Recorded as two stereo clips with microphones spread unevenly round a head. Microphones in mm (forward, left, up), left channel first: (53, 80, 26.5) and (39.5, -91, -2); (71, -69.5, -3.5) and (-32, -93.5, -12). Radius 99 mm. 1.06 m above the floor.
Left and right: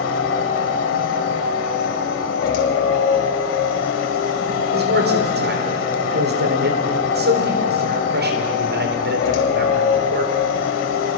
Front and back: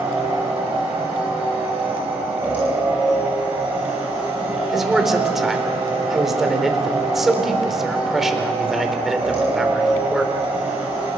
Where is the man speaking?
80° right, 4 m.